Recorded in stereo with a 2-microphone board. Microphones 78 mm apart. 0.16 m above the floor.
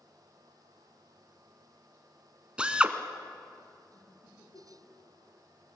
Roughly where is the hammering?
No hammering in this recording.